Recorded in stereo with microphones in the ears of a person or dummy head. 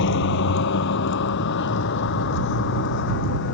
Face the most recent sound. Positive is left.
turn(degrees=70)  # may be behind; listen again after turning